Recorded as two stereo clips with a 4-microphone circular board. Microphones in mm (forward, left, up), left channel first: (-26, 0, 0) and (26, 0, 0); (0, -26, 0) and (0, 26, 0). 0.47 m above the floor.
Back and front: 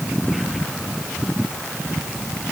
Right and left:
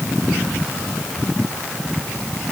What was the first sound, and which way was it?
Only background noise.